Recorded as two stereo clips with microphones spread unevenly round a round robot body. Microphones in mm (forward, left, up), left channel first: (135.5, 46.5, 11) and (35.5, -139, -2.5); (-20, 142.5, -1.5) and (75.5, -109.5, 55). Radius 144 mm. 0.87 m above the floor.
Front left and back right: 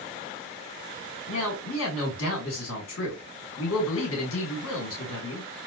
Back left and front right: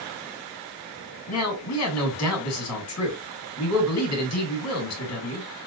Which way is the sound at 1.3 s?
100° left.